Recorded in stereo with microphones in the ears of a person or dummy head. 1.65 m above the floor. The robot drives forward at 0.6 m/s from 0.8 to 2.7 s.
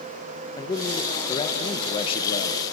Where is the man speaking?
20° left (ahead or behind), 2.5 m; by 2.6 s 40° left (ahead or behind), 1.5 m.